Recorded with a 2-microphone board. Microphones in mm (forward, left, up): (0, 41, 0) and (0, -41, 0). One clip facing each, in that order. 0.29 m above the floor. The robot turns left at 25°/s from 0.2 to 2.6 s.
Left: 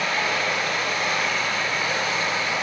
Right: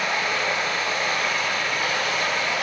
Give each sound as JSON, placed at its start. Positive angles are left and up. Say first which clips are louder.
{"t": 0.0, "sound": "running water", "louder": "even", "azimuth_deg": -15, "distance_m": 1.7}